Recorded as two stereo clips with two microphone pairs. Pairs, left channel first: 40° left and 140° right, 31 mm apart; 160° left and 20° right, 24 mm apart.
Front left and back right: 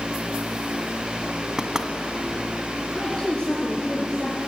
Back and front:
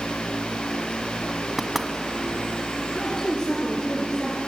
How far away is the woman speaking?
About 4 m.